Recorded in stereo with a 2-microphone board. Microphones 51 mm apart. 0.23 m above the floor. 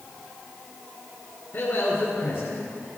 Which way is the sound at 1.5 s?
50° left (ahead or behind).